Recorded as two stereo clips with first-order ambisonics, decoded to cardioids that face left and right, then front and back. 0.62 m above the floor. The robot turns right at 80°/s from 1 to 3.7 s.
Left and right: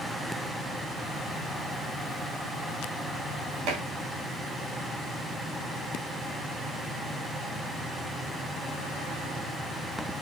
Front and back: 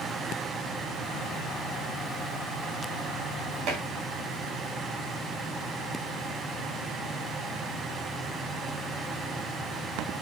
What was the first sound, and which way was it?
Dishes clattering, 130° right.